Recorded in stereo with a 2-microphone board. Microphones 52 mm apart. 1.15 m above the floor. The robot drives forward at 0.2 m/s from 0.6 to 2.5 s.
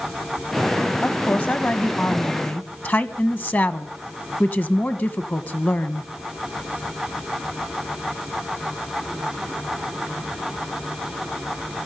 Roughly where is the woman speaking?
Left.